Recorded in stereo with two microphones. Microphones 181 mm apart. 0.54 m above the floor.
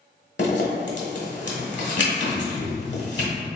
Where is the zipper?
80° left, 1.1 m.